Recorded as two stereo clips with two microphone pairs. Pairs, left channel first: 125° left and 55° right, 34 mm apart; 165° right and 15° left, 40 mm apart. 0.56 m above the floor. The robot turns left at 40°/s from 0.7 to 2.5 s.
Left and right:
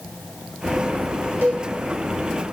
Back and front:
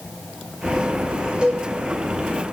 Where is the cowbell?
50° right, 1.3 m; by 1.7 s 60° right, 1.3 m.